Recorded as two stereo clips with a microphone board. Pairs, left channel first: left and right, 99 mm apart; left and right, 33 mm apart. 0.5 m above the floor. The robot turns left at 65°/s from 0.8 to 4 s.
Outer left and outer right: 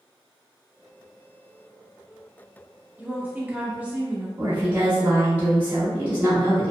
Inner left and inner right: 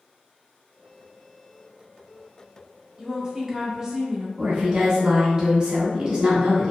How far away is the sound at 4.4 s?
About 1.0 m.